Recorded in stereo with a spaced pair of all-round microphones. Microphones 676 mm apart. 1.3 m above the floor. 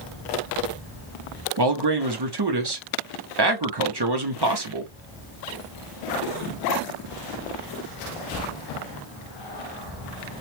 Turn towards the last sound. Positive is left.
turn(degrees=-40)  # may be behind; listen again after turning